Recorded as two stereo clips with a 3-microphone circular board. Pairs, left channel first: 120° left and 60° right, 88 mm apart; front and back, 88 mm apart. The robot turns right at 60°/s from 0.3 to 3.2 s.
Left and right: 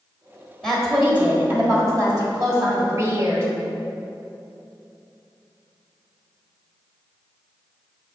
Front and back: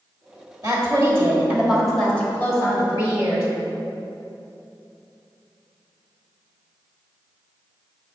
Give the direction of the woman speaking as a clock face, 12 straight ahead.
5 o'clock.